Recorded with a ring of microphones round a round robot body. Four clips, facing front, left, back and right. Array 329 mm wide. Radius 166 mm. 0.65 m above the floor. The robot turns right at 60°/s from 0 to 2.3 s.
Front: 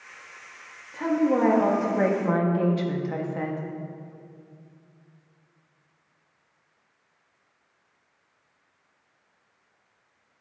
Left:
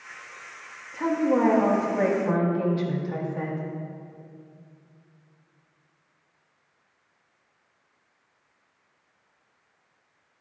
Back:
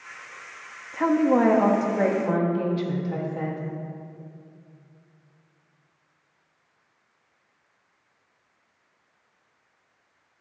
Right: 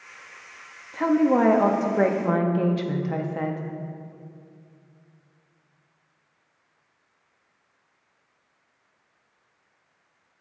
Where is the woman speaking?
150° right, 0.6 m; by 3.6 s 70° right, 0.6 m.